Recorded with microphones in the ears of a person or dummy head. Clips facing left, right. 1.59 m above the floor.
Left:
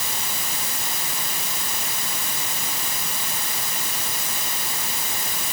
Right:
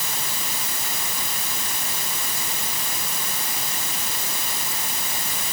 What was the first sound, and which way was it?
Only background noise.